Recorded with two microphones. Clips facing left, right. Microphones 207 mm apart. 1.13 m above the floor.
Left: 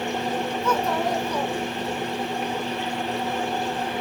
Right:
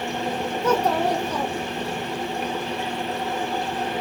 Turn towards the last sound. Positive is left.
turn(degrees=-80)